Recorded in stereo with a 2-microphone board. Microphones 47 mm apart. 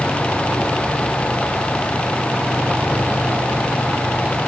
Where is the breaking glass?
No breaking glass in this recording.